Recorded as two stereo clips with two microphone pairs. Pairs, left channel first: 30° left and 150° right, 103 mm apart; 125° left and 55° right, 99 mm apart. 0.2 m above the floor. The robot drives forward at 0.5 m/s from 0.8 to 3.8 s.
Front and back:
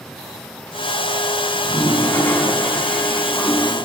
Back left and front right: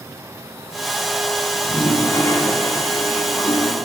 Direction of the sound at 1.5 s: 70° left.